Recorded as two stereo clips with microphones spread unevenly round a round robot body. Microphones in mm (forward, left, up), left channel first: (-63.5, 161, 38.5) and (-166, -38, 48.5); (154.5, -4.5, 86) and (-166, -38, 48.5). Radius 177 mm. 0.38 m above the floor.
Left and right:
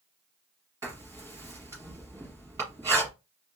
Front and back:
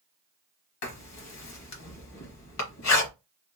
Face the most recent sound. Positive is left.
turn(degrees=-35)